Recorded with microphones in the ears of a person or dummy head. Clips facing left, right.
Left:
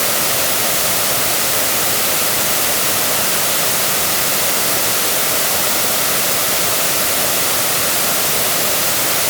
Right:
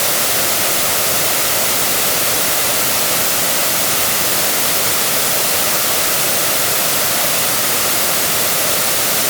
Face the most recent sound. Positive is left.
No sound to turn to.